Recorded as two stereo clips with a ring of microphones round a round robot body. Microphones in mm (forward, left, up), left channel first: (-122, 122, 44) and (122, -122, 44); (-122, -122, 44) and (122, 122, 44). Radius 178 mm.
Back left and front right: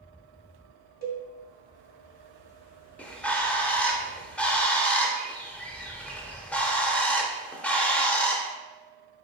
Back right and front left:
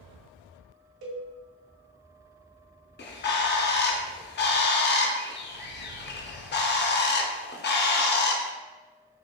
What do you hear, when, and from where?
1.0 s a cowbell: 15° left, 2 m
3.0 s a bird: 140° right, 0.6 m